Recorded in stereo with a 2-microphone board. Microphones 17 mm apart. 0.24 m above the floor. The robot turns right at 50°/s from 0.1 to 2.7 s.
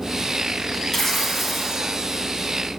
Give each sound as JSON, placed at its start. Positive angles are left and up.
{"t": 0.9, "sound": "tearing paper", "azimuth_deg": 145, "distance_m": 1.9}